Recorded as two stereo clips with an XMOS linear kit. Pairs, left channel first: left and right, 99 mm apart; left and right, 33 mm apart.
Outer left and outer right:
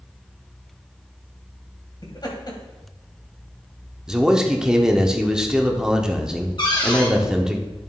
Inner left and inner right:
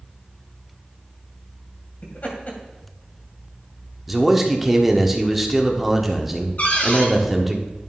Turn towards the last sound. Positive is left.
turn(degrees=50)  # may be behind; listen again after turning